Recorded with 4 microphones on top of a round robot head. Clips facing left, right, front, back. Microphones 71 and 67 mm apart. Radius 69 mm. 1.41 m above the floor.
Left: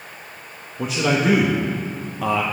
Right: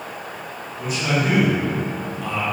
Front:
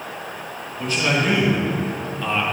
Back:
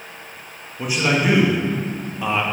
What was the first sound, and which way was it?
A man speaking, 105° left.